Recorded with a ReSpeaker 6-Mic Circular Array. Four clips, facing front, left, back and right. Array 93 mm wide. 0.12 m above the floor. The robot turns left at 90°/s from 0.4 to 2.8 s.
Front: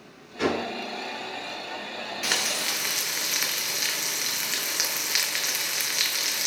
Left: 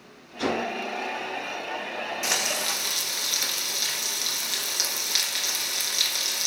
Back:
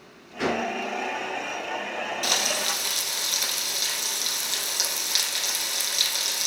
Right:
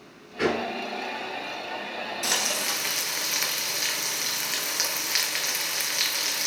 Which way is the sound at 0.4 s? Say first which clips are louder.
Right 1 dB, even; 110° right.